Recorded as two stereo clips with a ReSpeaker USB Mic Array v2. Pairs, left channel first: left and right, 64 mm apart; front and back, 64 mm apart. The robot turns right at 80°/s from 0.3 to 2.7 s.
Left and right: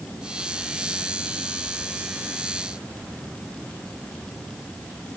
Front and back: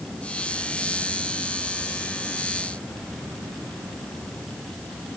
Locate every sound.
Only background noise.